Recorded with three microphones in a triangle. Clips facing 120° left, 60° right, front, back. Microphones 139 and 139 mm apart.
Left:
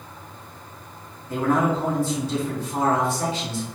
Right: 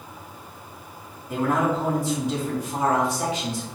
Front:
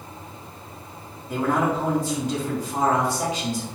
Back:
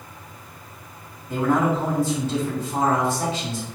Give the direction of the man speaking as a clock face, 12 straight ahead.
1 o'clock.